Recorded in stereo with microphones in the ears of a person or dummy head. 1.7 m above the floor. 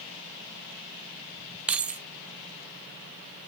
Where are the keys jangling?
5° right (ahead or behind), 0.6 m.